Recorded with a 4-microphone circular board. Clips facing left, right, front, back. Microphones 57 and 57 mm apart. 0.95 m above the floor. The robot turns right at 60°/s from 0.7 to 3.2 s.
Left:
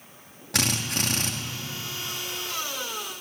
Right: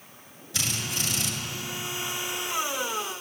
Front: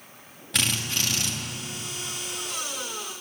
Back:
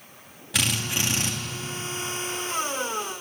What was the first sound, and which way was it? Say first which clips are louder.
A drill: left 4 dB, back 1 dB; 95° left.